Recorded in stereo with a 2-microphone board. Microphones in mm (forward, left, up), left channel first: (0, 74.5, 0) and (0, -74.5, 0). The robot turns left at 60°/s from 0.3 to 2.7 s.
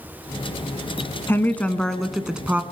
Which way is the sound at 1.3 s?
15° left (ahead or behind).